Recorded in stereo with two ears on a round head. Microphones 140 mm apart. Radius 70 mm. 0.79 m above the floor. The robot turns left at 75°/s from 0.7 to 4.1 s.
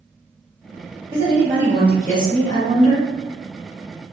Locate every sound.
1.1 s a woman speaking: 115° right, 1.1 m; by 3.1 s 100° left, 1.1 m